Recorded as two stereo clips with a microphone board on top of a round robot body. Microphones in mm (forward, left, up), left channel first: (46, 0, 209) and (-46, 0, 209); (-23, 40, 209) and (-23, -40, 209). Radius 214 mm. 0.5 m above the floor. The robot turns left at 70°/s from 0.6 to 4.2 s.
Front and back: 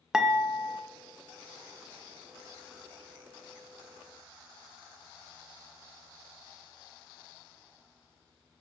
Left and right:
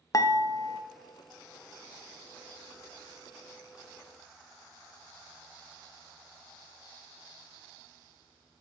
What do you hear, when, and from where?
0.1 s dishes clattering: 100° left, 0.7 m; by 0.8 s 85° left, 0.7 m